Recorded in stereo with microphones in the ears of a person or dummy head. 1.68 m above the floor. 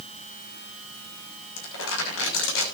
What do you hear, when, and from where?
1.6 s crumpling: 75° left (ahead or behind), 6.5 m